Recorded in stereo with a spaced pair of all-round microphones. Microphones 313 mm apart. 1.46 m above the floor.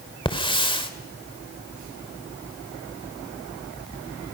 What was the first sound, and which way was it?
A hiss, 15° left (ahead or behind).